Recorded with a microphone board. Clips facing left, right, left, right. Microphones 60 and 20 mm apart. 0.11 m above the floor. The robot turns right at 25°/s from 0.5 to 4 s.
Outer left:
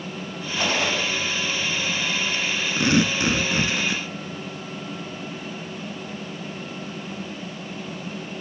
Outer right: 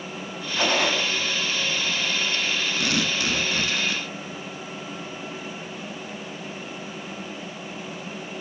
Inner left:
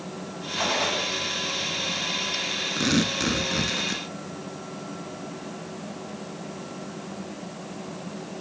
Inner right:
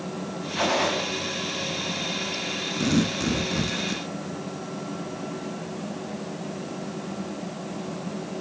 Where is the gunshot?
55° right (ahead or behind), 6 m; by 1.0 s 40° right (ahead or behind), 6 m.